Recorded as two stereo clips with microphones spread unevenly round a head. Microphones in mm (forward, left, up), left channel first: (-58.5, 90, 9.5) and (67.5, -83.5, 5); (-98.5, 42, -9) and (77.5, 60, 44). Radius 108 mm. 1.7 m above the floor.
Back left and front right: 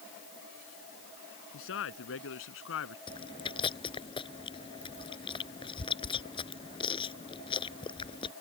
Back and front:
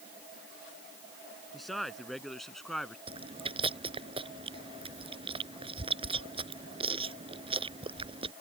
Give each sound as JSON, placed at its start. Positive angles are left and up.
{"t": 1.5, "sound": "a man speaking", "azimuth_deg": 95}
{"t": 3.1, "sound": "chewing", "azimuth_deg": 60}